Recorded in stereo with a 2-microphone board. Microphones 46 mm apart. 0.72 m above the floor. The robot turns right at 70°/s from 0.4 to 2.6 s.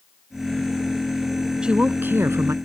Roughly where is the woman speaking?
Behind.